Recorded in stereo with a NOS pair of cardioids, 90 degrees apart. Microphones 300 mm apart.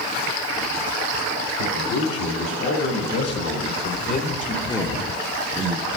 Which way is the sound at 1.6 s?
70° left.